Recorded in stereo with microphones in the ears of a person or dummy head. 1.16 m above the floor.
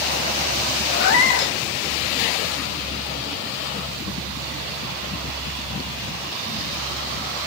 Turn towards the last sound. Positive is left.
turn(degrees=65)  # may be behind; listen again after turning